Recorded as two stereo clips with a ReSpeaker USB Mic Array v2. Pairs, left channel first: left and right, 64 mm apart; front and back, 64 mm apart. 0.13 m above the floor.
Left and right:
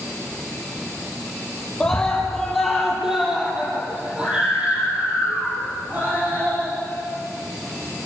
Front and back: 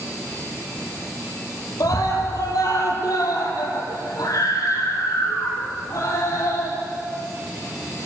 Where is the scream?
10° left, 4.5 m; by 6.8 s 35° right, 8 m.